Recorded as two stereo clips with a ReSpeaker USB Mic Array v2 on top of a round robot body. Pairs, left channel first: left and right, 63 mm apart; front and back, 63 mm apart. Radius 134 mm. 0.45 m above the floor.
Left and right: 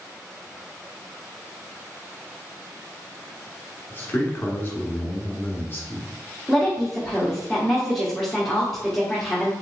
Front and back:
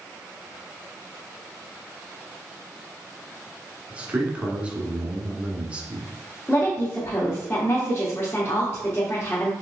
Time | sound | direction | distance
3.9 | a man speaking | 120° left | 1.3 m
6.5 | a woman speaking | 5° left | 1.1 m